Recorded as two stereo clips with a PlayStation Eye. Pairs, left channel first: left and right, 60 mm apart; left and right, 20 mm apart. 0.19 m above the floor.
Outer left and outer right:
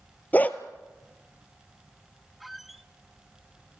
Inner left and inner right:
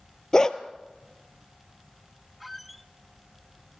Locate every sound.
0.3 s a dog barking: 30° left (ahead or behind), 1.3 m
2.4 s a squeak: centre (ahead or behind), 0.9 m